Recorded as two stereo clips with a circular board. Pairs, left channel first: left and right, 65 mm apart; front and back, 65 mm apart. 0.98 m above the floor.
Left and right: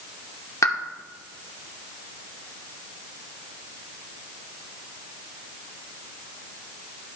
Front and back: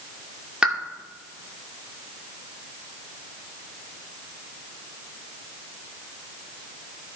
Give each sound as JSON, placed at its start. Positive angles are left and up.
{"t": 0.6, "sound": "a pop", "azimuth_deg": 110, "distance_m": 0.7}